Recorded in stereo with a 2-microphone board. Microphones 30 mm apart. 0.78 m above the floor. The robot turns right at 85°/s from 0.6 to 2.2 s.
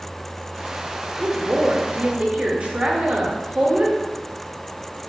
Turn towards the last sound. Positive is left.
turn(degrees=-50)